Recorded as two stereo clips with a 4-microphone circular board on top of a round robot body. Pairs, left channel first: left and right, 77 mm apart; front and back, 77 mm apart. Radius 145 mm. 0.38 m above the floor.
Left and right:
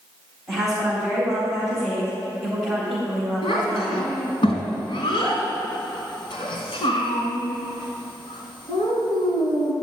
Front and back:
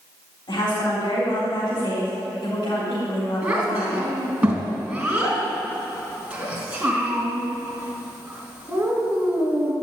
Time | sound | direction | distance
0.5 | a woman speaking | 5° left | 4 m
3.4 | a child speaking | 100° left | 3.5 m